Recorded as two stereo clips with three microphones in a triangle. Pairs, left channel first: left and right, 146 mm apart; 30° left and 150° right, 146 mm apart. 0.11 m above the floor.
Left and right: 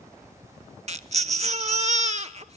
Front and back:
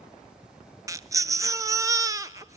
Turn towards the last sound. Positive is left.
turn(degrees=-90)